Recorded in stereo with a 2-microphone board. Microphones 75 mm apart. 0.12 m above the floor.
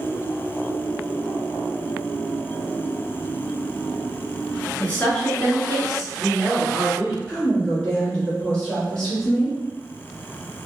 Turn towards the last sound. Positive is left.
turn(degrees=15)  # may be behind; listen again after turning